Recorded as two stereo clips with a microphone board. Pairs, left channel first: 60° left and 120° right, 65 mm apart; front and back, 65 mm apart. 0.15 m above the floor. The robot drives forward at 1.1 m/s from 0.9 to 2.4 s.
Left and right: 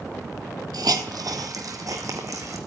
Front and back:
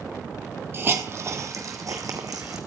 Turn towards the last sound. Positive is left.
turn(degrees=-155)